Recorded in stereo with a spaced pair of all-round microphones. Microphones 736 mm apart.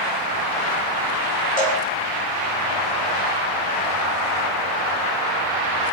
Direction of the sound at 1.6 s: 55° left (ahead or behind).